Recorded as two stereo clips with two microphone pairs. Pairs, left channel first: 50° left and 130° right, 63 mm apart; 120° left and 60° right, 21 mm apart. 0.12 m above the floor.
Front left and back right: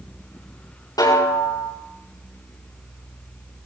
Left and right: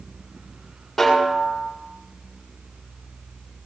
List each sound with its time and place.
1.0 s a snare drum: 40° left, 7.5 m